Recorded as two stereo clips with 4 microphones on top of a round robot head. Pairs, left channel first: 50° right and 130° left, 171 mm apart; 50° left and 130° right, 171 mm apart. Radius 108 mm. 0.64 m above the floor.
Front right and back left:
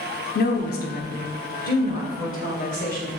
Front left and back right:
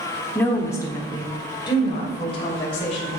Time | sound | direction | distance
0.3 | a woman speaking | 30° right | 1.6 m